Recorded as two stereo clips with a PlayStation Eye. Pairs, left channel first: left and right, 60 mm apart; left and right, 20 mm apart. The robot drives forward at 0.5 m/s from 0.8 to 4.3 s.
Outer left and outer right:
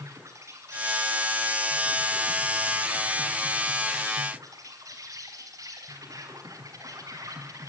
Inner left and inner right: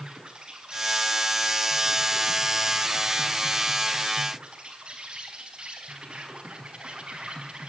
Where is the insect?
55° right (ahead or behind), 6 m; by 7.7 s 65° right (ahead or behind), 5.5 m.